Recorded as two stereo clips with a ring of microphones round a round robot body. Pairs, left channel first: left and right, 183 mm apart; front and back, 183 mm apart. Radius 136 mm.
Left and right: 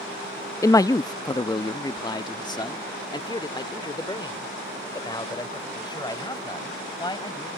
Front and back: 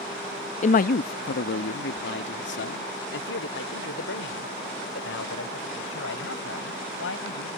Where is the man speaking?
20° left; by 7.6 s 25° left.